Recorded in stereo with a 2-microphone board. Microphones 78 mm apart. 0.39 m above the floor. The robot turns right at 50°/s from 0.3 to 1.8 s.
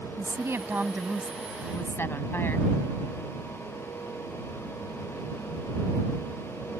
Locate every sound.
0.2 s a woman speaking: 45° right; by 2.7 s 30° left